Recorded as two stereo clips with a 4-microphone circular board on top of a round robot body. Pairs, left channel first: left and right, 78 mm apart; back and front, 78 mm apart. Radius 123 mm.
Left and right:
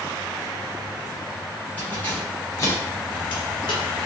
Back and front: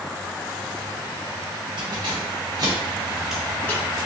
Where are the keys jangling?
20° left, 1.1 m; by 3.8 s 120° left, 0.6 m.